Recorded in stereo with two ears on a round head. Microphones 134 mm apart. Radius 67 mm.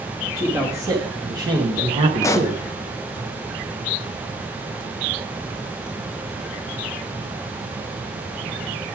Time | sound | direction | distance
0.3 | a man speaking | 20° right (ahead or behind) | 1.8 m
2.2 | a pop | 20° left (ahead or behind) | 0.6 m